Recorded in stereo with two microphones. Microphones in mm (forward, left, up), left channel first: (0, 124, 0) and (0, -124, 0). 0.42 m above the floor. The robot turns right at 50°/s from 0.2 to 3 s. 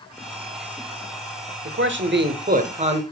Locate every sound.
1.6 s a man speaking: 95° right, 1.1 m; by 3.0 s 25° right, 1.1 m